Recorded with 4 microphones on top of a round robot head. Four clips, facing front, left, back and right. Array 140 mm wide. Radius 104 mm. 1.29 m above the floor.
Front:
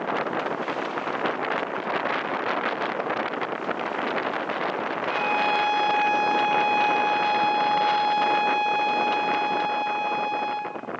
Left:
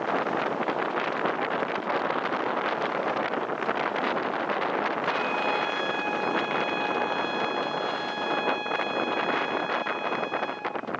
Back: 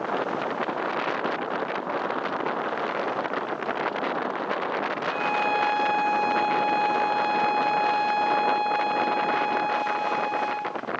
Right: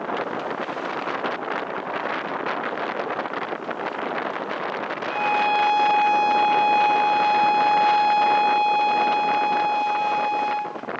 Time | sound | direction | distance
5.1 | a violin | 85° right | 1.1 m